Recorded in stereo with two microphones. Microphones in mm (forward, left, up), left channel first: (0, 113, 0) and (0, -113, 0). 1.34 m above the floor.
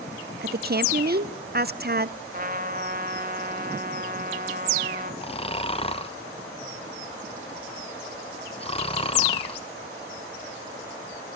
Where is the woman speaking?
45° right (ahead or behind), 0.9 m.